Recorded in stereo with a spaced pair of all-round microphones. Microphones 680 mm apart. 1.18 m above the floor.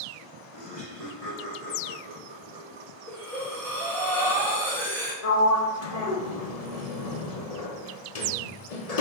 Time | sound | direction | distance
0.5 | laughter | 50° right (ahead or behind) | 2.5 m
3.1 | breathing | 5° left (ahead or behind) | 1.6 m
5.2 | a sliding door | 60° left (ahead or behind) | 0.9 m